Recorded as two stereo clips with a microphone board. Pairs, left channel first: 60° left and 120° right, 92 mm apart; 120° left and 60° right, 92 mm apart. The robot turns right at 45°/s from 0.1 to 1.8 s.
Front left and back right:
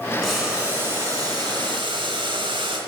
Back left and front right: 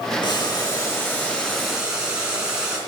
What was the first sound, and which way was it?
Boiling, 145° left.